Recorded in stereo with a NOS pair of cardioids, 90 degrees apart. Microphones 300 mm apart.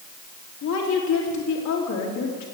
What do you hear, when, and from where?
0.6 s a woman speaking: 70° left, 3 m